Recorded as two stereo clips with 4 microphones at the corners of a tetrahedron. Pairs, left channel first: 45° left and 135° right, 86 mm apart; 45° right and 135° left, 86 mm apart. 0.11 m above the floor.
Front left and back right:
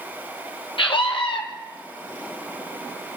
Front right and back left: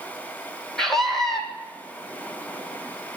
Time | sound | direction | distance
0.8 | a scream | 40° left | 3 m